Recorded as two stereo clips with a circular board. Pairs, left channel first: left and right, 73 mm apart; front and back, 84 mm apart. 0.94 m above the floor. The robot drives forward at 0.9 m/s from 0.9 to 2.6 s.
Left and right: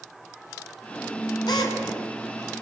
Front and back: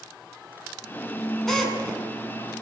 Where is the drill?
85° left, 7 m; by 2.0 s 90° left, 7 m.